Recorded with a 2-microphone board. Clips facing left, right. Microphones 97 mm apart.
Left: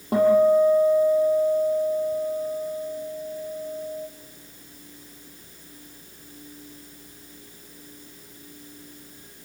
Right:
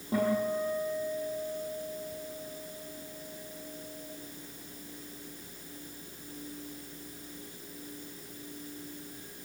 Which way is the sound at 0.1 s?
70° left (ahead or behind).